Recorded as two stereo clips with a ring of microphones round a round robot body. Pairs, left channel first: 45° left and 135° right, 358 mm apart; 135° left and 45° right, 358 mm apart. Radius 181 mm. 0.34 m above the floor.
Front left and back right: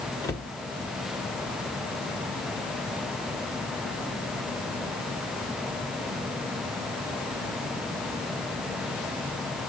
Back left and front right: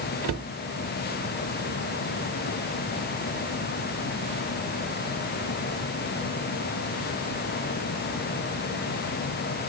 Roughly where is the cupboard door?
Ahead right.